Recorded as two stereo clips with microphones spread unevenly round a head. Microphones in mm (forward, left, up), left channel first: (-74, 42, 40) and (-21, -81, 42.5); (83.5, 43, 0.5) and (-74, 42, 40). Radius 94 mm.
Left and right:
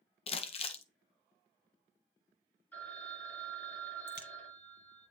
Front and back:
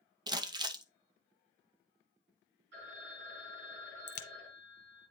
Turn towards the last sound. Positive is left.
turn(degrees=85)